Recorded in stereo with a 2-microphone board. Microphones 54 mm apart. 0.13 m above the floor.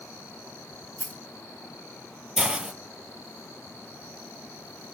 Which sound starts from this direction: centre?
A hiss, at 2.4 s.